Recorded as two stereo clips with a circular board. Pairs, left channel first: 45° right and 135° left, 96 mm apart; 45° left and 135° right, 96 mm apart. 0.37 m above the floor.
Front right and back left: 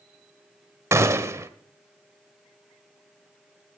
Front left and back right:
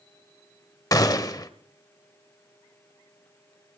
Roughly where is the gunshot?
Left.